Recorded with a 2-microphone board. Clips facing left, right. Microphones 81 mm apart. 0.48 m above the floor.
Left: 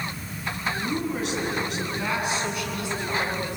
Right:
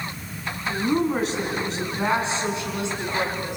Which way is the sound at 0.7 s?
45° right (ahead or behind).